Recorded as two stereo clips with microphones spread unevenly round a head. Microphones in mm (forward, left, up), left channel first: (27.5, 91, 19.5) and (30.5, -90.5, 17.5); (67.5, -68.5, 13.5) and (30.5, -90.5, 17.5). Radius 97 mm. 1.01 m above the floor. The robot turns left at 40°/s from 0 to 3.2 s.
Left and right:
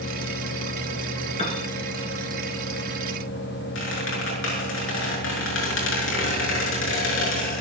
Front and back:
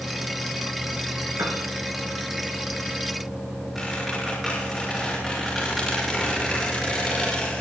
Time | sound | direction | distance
1.4 | a piano | 150° left | 2.5 m
3.8 | a squeak | 120° left | 6 m